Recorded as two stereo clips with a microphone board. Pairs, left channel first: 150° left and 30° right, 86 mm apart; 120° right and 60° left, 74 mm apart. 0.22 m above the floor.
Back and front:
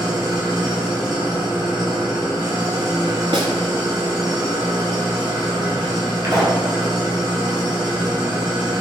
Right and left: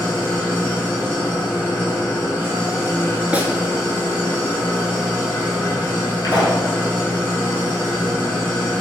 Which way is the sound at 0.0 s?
60° right.